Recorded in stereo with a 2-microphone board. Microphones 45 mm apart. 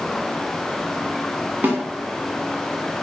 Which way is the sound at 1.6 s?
50° right (ahead or behind).